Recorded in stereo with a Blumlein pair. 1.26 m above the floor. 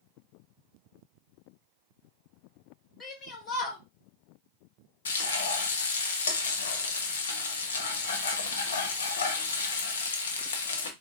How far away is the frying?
About 0.7 m.